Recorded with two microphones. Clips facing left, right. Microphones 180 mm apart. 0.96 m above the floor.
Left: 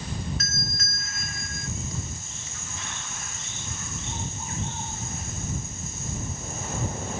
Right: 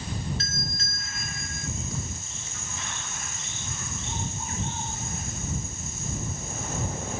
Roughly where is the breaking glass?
I don't hear breaking glass.